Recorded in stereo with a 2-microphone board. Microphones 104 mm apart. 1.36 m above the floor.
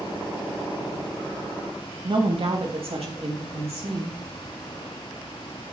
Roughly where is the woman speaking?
Right.